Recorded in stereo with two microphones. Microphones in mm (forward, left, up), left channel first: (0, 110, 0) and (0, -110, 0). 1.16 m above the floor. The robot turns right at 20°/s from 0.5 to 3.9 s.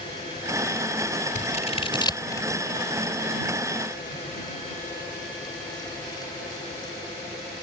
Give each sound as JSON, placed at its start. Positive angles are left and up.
{"t": 1.4, "sound": "scissors", "side_deg": 35}